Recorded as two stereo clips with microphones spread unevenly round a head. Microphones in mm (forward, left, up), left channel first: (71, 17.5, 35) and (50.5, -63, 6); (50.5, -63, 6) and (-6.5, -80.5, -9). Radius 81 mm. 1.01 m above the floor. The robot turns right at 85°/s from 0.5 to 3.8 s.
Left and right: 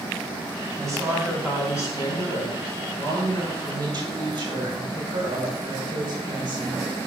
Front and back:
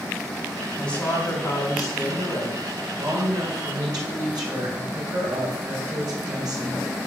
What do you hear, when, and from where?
0.8 s a woman speaking: 60° right, 3.5 m; by 6.8 s 165° right, 3.5 m